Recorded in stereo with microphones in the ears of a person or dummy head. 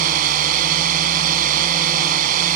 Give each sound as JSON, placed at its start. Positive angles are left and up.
{"t": 0.0, "sound": "a drone", "side_deg": -45}